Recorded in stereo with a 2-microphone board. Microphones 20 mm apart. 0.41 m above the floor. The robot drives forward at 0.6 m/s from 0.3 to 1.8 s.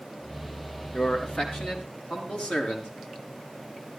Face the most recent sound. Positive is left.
turn(degrees=60)  # may be behind; listen again after turning